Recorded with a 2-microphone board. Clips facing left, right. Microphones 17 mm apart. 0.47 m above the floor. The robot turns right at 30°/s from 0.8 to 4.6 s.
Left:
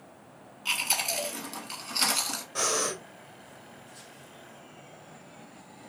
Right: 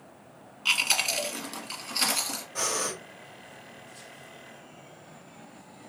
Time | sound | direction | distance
0.7 | chewing | 25° right | 1.2 m
2.5 | breathing | 35° left (ahead or behind) | 1.5 m